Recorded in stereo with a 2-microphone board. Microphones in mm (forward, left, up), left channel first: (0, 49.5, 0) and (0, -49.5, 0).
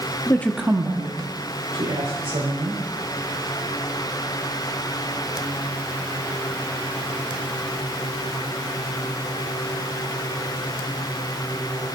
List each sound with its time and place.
0.3 s a woman speaking: 30° left (ahead or behind), 0.7 m; by 2.8 s 70° right (ahead or behind), 3 m